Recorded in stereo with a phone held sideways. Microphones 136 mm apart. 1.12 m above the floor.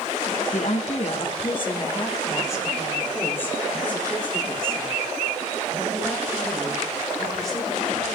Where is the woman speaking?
60° left (ahead or behind), 1.2 m; by 8.2 s centre (ahead or behind), 5.5 m.